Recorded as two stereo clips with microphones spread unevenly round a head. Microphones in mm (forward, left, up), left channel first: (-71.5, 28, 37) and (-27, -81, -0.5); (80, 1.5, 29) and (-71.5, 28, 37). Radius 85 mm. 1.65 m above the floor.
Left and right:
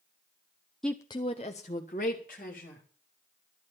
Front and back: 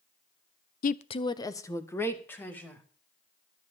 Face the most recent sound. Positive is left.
turn(degrees=70)